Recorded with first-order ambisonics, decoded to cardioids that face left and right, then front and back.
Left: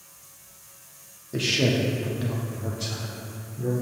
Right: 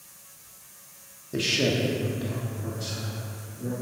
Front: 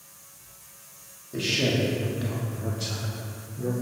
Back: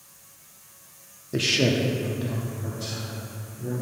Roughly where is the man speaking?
Behind.